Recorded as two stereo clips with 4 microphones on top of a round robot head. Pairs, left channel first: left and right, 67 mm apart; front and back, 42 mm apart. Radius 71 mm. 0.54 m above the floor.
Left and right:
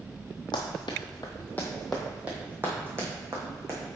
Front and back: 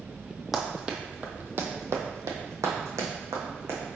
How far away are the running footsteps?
About 0.8 m.